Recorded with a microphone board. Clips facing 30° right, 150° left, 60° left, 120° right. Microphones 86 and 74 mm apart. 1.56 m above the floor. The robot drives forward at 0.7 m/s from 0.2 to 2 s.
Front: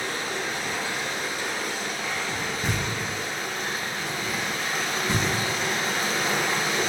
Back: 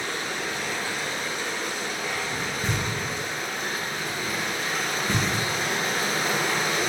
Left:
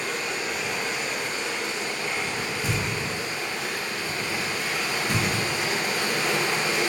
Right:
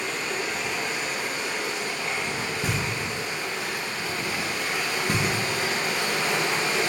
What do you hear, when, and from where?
0.0 s running water: 20° right, 1.7 m; by 6.9 s 130° right, 1.4 m
2.6 s knocking: 105° right, 1.1 m